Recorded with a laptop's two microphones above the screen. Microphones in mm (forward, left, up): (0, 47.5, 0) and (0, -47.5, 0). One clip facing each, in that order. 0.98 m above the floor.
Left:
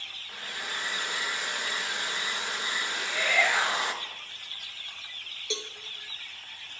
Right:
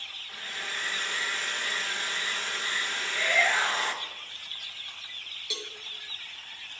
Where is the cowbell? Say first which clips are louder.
Left 5 dB; 25° left (ahead or behind), 0.9 m.